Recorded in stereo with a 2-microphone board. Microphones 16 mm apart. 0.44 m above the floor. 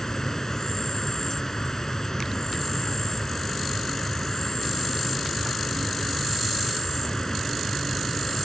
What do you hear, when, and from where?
0.0 s an insect: 35° left (ahead or behind)